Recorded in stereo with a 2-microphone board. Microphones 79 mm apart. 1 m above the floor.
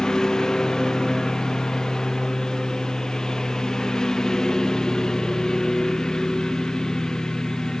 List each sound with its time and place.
0.0 s a lawn mower: 5° left (ahead or behind)